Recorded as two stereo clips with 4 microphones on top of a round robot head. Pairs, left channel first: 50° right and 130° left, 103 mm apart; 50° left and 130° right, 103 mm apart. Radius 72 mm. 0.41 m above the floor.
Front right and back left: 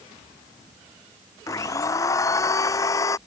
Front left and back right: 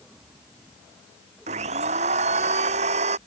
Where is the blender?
110° right.